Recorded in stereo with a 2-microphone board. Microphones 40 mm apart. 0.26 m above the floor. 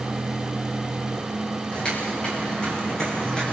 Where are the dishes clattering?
I don't hear dishes clattering.